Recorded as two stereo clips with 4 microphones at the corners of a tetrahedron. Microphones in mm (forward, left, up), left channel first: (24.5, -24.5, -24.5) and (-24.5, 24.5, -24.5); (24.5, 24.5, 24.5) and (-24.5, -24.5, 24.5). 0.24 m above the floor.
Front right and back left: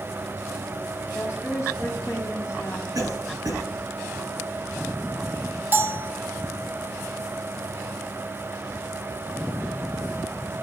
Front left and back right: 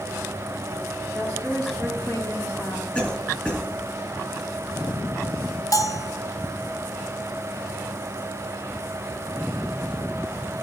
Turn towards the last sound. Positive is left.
turn(degrees=75)